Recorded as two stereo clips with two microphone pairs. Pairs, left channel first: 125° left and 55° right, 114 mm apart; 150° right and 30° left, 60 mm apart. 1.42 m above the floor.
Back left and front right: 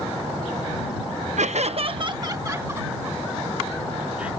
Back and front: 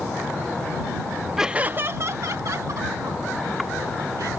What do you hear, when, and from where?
1.4 s laughter: 55° right; by 4.3 s 25° left